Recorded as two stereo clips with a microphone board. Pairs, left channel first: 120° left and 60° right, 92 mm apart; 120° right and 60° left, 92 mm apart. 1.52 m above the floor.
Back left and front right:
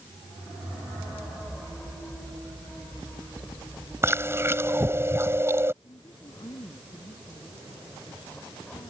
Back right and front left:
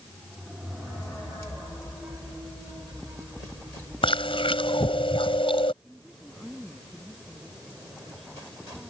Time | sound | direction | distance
4.0 | chewing | 120° right | ?
5.8 | a woman speaking | 150° left | ?